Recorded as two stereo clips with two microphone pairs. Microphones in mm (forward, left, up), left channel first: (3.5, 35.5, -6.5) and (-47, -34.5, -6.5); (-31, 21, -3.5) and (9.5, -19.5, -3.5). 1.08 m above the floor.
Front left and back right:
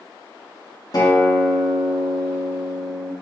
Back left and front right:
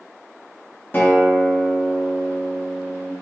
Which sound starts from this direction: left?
A guitar, at 0.9 s.